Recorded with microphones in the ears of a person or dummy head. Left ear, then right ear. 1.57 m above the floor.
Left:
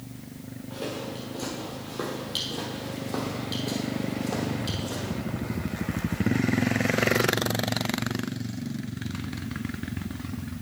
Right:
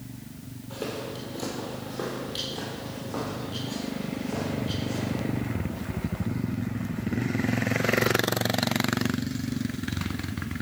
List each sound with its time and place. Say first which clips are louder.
0.7 s footsteps: even; 20° right (ahead or behind), 2 m; by 5.1 s 40° left (ahead or behind), 3.5 m